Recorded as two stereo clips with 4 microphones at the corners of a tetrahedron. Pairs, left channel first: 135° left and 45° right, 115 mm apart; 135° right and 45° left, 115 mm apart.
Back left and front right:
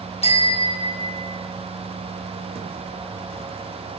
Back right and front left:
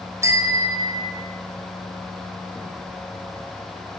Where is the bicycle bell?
110° left, 3.5 m; by 1.3 s 90° left, 4.5 m.